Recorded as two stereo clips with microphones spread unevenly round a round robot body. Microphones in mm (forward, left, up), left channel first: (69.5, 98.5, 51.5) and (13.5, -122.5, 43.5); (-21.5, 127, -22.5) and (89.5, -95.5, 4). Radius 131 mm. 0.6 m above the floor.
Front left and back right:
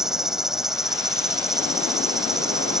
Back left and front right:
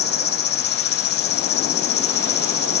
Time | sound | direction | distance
0.0 | an insect | 165° left | ?